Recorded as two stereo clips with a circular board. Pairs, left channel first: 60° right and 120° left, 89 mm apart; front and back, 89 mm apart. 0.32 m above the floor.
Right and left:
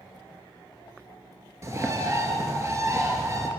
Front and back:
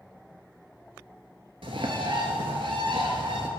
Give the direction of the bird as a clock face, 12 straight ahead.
6 o'clock.